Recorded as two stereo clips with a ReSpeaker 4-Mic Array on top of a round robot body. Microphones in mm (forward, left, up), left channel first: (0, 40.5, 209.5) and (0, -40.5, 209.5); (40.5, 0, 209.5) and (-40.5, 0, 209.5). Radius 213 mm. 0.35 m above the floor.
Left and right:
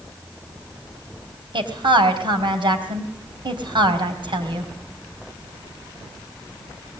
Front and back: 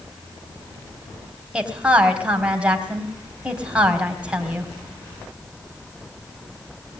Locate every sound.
1.5 s a woman speaking: 100° right, 4 m